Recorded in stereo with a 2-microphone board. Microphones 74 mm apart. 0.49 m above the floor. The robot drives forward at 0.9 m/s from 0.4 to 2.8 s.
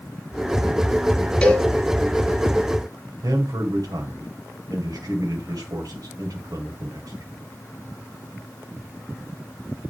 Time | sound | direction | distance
1.4 | a cowbell | 15° left (ahead or behind) | 1.8 m
3.2 | a man speaking | 60° right (ahead or behind) | 2 m